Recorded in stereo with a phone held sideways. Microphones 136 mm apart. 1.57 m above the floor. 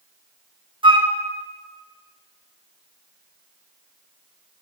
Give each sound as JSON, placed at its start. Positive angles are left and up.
{"t": 0.8, "sound": "a flute", "side_deg": -35, "distance_m": 0.6}